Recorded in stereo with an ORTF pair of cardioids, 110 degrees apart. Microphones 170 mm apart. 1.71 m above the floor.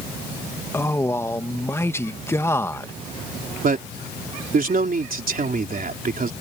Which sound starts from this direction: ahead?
A man speaking, at 0.7 s.